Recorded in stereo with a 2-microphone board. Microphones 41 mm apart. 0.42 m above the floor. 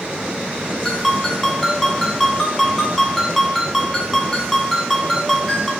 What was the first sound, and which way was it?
A ringtone, 5° left (ahead or behind).